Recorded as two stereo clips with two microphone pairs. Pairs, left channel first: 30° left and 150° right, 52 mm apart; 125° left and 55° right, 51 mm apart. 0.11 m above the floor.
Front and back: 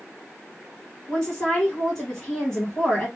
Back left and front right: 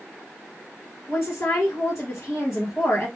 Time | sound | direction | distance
1.1 | a woman speaking | 105° left | 2 m